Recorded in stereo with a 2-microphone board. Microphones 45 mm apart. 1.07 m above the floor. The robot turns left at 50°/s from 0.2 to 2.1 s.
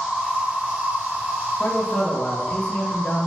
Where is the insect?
10° right, 1.5 m; by 3.3 s 105° right, 1.5 m.